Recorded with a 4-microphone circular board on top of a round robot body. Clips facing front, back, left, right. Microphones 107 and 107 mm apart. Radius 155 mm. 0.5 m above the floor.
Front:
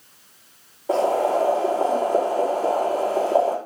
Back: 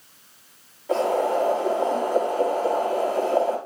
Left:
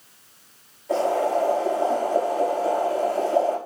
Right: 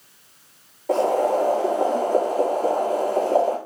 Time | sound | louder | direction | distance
0.9 | boiling | front 2 dB, right 2 dB | 55° right | 9.5 m